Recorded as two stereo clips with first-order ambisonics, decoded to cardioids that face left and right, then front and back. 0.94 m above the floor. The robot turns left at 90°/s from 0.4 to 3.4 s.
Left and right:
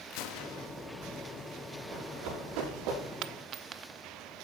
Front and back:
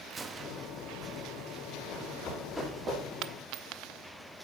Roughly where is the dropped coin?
Behind right.